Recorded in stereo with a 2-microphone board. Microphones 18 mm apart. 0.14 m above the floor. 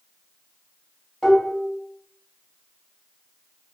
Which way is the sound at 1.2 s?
40° left (ahead or behind).